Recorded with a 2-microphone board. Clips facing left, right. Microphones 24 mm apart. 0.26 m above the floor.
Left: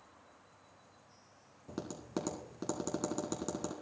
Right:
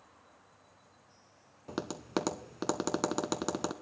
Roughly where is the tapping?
Right.